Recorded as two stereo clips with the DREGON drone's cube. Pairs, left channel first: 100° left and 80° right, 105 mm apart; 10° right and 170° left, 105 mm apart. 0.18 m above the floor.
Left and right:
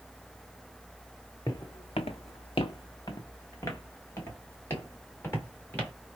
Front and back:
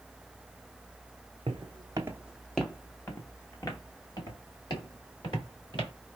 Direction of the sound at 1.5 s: 150° left.